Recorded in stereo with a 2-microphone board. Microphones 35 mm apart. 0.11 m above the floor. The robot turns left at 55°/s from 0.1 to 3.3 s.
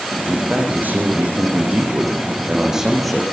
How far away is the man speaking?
About 6.5 m.